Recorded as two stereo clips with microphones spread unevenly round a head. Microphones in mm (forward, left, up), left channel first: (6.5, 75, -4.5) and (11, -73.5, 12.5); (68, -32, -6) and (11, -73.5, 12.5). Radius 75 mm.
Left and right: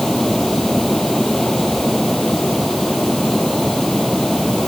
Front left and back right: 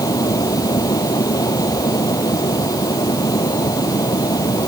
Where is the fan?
5° left.